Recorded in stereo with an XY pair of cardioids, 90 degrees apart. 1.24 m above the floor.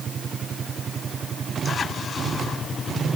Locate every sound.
Only background noise.